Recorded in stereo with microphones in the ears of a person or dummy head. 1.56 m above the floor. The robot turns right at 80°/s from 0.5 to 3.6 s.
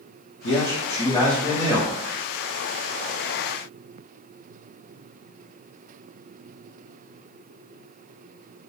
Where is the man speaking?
100° left, 0.5 m; by 2.0 s 140° right, 0.5 m.